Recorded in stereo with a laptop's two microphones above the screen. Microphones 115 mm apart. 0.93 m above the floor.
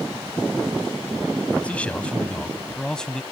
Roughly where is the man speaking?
Centre.